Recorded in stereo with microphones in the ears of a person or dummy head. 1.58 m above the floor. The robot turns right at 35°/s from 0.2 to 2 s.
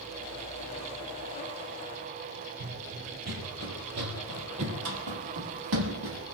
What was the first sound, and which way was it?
Running footsteps, 45° right (ahead or behind).